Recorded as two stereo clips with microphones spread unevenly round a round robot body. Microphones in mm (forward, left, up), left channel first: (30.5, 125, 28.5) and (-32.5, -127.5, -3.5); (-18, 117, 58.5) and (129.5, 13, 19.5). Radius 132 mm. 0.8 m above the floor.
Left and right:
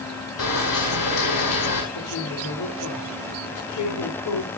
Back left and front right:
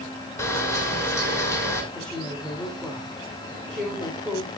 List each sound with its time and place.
0.4 s a camera shutter: 65° left, 7.5 m
1.9 s a woman speaking: 55° left, 3.5 m